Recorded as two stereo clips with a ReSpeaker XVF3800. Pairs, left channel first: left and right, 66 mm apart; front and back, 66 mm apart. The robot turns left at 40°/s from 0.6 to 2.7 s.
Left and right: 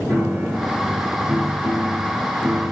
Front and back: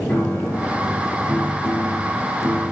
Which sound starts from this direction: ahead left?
A piano, at 0.1 s.